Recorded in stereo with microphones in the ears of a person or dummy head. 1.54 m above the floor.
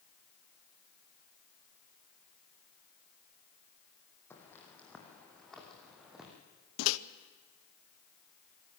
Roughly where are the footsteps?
Centre.